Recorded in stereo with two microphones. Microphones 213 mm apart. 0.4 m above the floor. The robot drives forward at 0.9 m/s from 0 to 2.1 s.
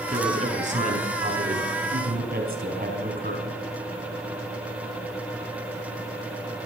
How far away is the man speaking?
About 5 m.